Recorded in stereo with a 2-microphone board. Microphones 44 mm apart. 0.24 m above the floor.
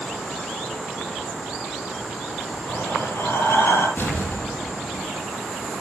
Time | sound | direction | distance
2.6 | breathing | 70° left (ahead or behind) | 6.5 m
4.0 | an explosion | 60° left (ahead or behind) | 8.5 m